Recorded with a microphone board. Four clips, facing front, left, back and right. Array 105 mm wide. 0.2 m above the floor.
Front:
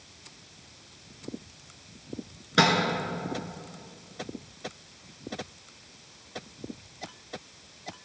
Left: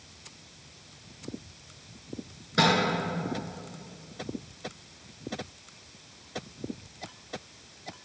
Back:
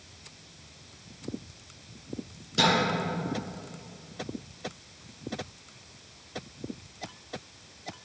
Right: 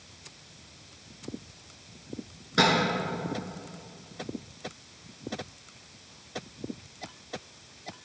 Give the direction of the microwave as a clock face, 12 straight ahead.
12 o'clock.